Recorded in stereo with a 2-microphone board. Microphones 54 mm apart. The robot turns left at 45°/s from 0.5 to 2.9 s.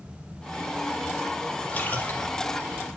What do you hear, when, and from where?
1.7 s a splash: 25° left (ahead or behind), 4 m; by 2.3 s 50° left (ahead or behind), 4 m